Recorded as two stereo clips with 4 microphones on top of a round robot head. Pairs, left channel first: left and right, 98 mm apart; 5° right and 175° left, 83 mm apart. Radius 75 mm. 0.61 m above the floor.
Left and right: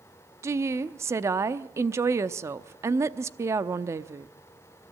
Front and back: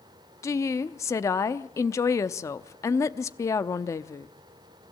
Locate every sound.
0.4 s a woman speaking: 40° right, 0.8 m